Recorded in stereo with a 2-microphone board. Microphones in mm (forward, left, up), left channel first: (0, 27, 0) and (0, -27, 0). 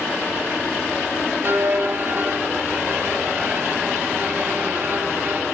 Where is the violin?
40° right (ahead or behind), 1.2 m.